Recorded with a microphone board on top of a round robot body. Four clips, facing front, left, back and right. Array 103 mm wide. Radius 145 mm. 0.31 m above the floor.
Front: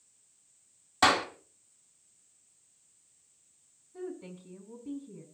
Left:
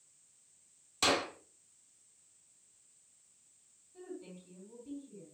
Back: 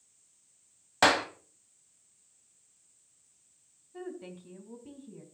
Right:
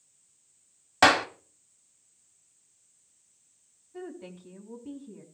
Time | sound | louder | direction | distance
1.0 | a clap | right 11 dB, even | 110° right | 2.5 m
3.9 | a woman speaking | right 6 dB, front 1 dB | 125° right | 3.5 m